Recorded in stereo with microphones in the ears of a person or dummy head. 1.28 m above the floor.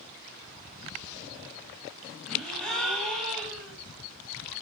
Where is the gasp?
5° left (ahead or behind), 6 m.